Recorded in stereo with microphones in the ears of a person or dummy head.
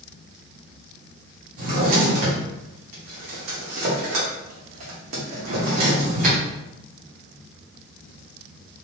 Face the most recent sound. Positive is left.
turn(degrees=-40)  # may be behind; listen again after turning